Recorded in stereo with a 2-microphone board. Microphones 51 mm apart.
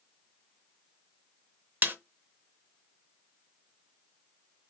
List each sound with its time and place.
1.8 s a snare drum: 45° right (ahead or behind), 0.7 m